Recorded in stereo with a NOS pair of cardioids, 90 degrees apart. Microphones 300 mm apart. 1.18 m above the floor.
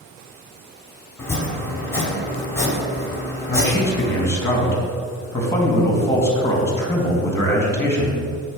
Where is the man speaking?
10° left, 2.5 m.